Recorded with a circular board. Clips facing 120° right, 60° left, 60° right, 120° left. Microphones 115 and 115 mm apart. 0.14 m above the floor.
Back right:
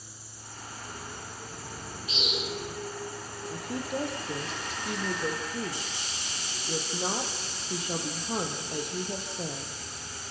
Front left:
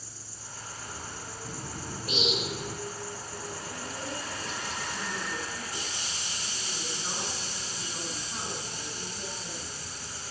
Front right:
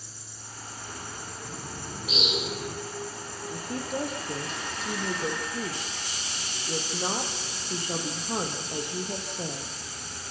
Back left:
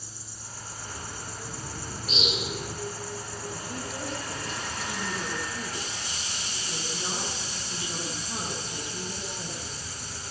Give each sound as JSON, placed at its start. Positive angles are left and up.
{"t": 0.0, "sound": "an insect", "azimuth_deg": 65, "distance_m": 7.5}
{"t": 1.4, "sound": "a bird", "azimuth_deg": 25, "distance_m": 6.0}
{"t": 3.5, "sound": "a woman speaking", "azimuth_deg": -95, "distance_m": 4.5}